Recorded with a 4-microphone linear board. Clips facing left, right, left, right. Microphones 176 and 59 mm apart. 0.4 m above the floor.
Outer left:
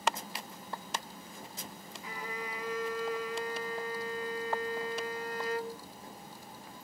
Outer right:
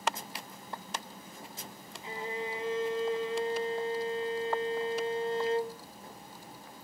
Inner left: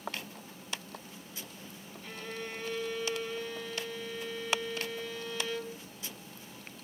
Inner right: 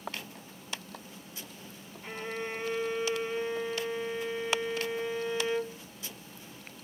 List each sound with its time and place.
2.0 s a violin: 25° right (ahead or behind), 0.8 m